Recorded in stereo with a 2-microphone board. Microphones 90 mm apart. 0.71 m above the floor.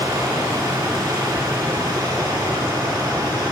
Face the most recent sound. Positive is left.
turn(degrees=-50)  # may be behind; listen again after turning